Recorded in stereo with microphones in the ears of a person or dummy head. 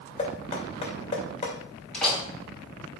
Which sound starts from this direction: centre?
A door slam, at 1.9 s.